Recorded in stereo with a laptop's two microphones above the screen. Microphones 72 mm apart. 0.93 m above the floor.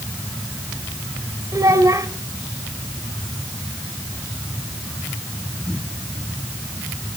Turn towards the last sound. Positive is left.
turn(degrees=-50)  # may be behind; listen again after turning